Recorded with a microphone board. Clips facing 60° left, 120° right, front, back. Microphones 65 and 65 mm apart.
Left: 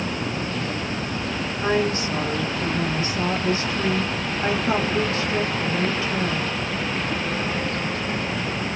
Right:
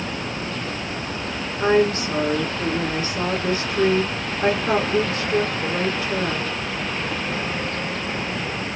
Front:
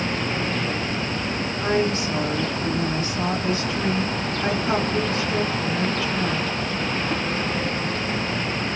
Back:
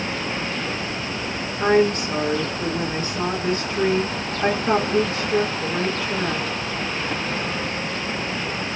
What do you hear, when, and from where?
1.6 s a woman speaking: 165° right, 1.9 m